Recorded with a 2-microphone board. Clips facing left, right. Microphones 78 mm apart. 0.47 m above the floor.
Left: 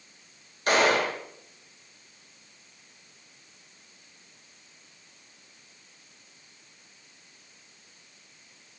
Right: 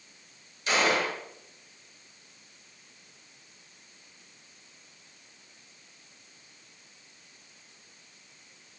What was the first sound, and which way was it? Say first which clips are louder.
A gunshot: left 3 dB; 50° left (ahead or behind).